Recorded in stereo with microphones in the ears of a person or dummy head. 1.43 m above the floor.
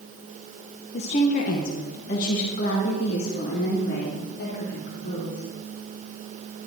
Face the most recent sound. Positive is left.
turn(degrees=70)  # may be behind; listen again after turning